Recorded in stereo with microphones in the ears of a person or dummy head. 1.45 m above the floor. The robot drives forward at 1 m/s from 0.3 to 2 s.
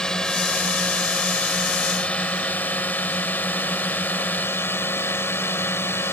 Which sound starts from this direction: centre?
A drone, at 0.0 s.